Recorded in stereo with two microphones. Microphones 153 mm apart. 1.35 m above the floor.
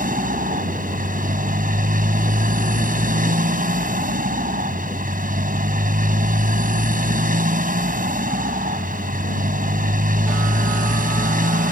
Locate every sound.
0.0 s a motorcycle: 65° right (ahead or behind)